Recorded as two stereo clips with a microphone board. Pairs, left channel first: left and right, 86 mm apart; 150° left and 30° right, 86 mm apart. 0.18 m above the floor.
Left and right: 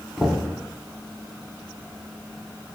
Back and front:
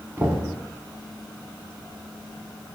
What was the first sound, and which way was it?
Knocking, 10° left.